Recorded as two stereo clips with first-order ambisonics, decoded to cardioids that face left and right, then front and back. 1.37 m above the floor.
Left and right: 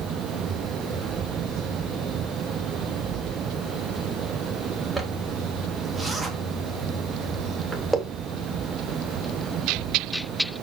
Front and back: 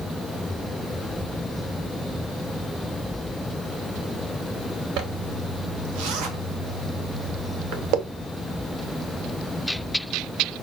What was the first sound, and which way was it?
A zipper, straight behind.